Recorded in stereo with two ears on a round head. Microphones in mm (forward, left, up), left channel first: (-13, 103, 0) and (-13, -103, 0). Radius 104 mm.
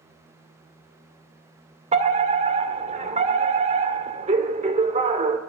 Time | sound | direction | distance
1.9 | a fire alarm | 30° right (ahead or behind) | 2 m